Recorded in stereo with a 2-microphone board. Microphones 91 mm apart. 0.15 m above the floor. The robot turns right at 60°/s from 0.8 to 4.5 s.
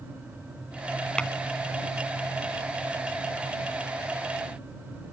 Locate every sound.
1.2 s tapping: 10° left (ahead or behind)